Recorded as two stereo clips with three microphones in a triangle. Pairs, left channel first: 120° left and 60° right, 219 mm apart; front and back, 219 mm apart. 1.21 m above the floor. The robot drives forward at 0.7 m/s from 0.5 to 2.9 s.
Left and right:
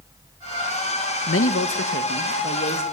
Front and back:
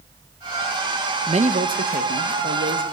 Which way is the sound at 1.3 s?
120° left.